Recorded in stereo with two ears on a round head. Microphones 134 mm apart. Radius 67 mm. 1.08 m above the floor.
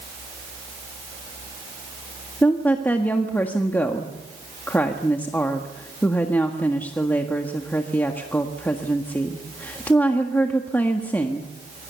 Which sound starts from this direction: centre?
A woman speaking, at 2.4 s.